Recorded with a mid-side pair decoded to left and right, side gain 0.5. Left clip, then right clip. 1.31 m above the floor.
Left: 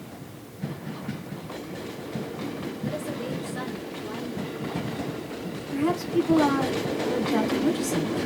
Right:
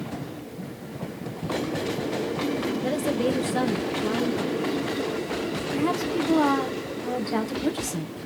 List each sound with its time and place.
2.8 s a woman speaking: 70° right, 1.5 m
5.7 s a woman speaking: 25° right, 1.5 m